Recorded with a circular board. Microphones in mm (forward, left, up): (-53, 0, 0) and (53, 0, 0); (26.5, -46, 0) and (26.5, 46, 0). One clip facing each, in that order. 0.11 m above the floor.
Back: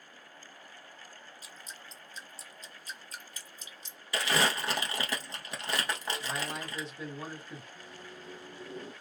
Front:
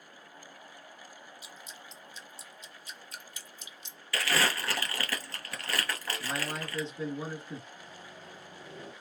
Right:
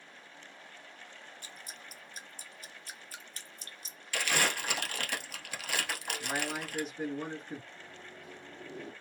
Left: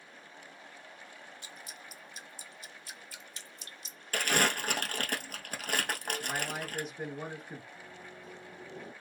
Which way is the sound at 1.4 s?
130° right.